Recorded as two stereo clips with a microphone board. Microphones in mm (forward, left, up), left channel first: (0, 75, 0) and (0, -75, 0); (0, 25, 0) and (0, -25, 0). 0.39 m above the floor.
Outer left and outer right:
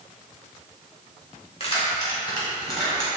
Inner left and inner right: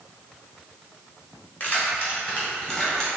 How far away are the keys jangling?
About 1.3 m.